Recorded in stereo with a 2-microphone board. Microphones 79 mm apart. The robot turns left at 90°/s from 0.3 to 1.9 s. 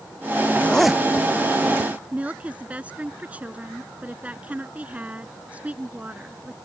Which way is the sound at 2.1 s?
15° right (ahead or behind).